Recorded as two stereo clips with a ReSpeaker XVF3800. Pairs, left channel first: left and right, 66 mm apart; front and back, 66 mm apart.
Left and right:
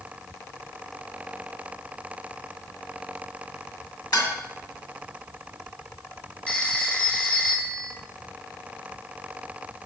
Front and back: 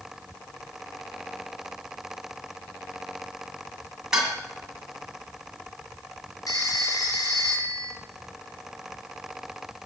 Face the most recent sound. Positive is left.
turn(degrees=15)